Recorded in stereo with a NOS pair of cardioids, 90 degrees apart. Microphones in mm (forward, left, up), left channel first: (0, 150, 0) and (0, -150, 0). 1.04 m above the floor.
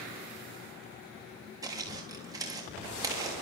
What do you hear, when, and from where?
1.6 s footsteps: 10° right, 4.5 m